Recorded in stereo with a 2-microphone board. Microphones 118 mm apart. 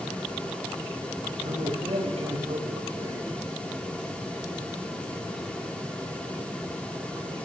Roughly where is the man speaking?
Right.